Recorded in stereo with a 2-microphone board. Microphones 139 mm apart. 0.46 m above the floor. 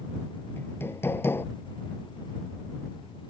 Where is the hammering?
15° left (ahead or behind).